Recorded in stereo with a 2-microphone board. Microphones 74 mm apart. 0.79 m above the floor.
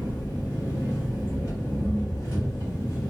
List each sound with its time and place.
0.0 s an engine running: 50° left (ahead or behind), 1.3 m